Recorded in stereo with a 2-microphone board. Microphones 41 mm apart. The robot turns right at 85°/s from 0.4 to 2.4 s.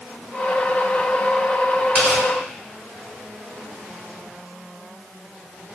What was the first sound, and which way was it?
Tearing paper, 35° right (ahead or behind).